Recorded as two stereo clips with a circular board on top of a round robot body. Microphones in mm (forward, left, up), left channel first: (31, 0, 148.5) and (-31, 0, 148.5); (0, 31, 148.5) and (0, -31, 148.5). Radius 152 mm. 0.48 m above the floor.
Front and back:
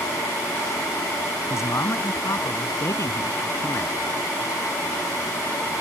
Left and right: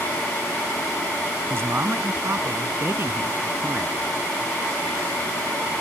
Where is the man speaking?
40° right.